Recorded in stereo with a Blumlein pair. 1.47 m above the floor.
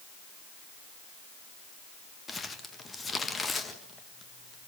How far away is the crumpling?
About 1.7 m.